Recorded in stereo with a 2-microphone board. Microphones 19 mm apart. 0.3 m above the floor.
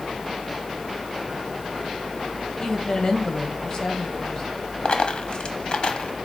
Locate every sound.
2.6 s a woman speaking: 45° left (ahead or behind), 1.8 m
4.8 s a dropped coin: 55° left (ahead or behind), 0.9 m